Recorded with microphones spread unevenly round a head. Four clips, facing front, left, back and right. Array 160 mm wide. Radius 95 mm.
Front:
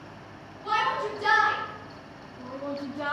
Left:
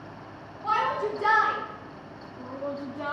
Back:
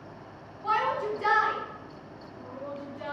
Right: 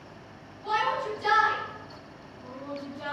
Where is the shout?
100° left, 1.8 m; by 3.1 s 25° left, 1.0 m.